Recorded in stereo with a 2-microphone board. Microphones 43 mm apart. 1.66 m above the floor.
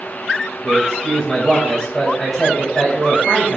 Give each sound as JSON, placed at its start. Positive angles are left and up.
{"t": 0.6, "sound": "a man speaking", "side_deg": 0, "distance_m": 1.8}